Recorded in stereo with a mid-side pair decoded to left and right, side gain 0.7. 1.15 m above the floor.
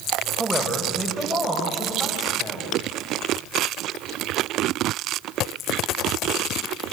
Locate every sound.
0.4 s a man speaking: straight ahead, 4.5 m; by 2.7 s 20° left, 6 m